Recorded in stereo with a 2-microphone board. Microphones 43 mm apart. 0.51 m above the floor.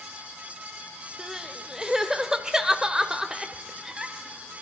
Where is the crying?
15° right (ahead or behind), 0.9 m.